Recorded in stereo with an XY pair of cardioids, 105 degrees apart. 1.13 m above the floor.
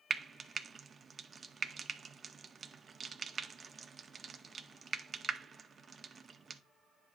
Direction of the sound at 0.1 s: 40° right.